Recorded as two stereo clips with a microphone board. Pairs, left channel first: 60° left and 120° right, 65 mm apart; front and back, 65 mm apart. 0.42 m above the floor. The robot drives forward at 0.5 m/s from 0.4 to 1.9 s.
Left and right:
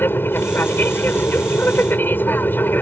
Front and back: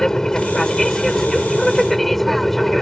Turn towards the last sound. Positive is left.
turn(degrees=85)